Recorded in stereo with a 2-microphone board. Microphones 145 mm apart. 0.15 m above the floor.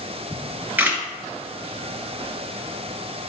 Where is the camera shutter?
10° right (ahead or behind), 2.0 m.